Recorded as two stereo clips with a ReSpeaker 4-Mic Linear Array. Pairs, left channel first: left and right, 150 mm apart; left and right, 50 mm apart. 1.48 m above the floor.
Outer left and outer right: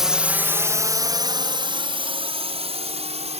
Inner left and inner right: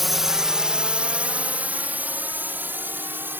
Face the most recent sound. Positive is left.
turn(degrees=-45)  # may be behind; listen again after turning